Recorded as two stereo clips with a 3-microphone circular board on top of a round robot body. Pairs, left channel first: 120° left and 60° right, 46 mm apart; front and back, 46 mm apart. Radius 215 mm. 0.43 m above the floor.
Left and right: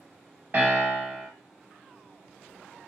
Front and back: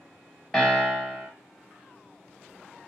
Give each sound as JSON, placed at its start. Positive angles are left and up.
{"t": 0.5, "sound": "a piano", "azimuth_deg": -80, "distance_m": 1.7}